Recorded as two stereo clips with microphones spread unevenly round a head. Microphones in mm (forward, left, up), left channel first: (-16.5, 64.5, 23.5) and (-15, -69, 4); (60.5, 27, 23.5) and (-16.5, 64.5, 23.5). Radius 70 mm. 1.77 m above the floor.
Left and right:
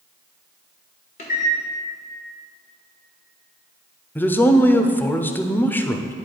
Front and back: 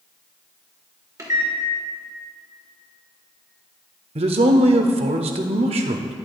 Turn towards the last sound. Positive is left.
turn(degrees=165)